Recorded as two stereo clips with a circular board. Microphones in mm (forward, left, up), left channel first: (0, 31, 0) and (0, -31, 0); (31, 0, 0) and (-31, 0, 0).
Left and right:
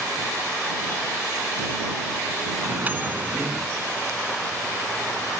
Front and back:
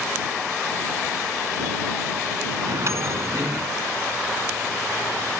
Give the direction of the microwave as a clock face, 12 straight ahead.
5 o'clock.